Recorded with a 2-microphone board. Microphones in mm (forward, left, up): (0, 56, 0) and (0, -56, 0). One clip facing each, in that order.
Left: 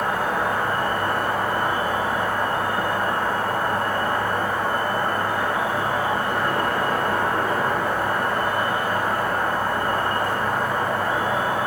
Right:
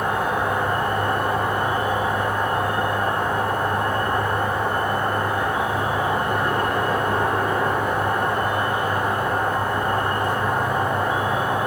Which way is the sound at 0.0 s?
20° right (ahead or behind).